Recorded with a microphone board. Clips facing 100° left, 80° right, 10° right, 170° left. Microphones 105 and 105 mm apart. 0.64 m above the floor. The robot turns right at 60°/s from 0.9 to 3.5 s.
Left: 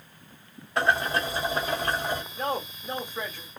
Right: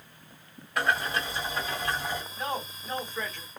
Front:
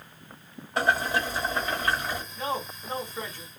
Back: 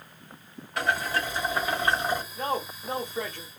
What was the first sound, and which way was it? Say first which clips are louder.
Boiling: left 3 dB, front 2 dB; 40° left.